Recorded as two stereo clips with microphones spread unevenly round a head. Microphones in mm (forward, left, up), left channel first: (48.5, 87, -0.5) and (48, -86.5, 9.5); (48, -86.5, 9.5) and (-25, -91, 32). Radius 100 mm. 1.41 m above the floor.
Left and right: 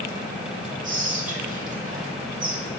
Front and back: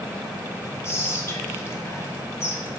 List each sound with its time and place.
0.8 s whispering: 50° right, 1.1 m